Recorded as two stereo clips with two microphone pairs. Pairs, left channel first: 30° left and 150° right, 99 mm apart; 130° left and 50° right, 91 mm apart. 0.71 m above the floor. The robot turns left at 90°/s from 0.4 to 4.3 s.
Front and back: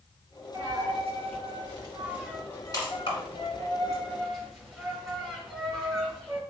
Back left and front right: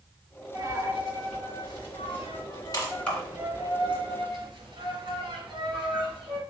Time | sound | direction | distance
0.5 | a dropped coin | 85° right | 1.9 m